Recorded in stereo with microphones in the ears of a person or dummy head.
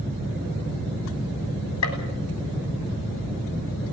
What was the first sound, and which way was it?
A gunshot, 75° left (ahead or behind).